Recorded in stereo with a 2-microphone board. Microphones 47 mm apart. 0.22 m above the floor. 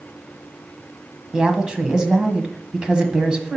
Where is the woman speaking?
20° right (ahead or behind), 1.4 m.